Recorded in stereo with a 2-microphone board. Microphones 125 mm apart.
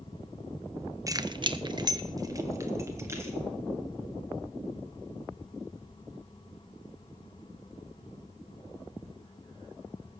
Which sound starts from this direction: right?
Keys jangling, at 1.1 s.